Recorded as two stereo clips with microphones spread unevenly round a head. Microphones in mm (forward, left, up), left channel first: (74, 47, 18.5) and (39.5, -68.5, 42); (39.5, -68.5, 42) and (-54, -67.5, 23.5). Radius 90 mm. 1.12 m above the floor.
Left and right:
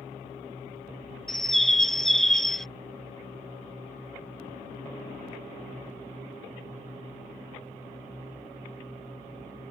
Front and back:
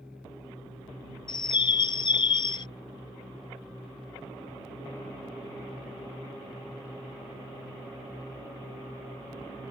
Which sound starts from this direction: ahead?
A bird, at 1.3 s.